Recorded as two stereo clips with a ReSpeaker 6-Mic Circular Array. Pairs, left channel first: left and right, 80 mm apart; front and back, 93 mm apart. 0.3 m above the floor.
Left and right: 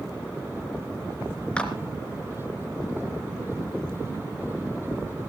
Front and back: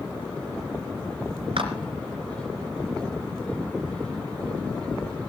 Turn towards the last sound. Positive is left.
turn(degrees=165)